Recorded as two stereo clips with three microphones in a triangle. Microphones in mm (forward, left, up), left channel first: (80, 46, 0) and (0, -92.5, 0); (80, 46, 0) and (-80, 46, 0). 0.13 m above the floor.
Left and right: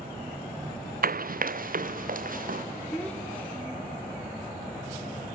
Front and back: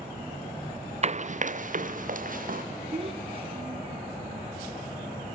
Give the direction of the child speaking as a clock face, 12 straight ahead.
7 o'clock.